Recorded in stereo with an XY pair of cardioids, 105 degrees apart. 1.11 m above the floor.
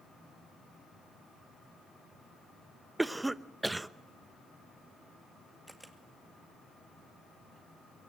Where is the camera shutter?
10° right, 2 m.